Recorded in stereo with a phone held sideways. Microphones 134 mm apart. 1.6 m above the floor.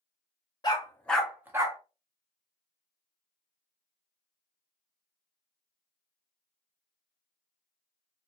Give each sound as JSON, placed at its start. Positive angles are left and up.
{"t": 0.6, "sound": "a dog barking", "side_deg": 30, "distance_m": 1.1}